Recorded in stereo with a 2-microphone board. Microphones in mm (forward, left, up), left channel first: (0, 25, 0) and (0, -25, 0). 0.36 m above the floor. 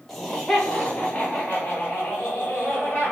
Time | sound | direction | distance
0.1 | laughter | centre (ahead or behind) | 0.9 m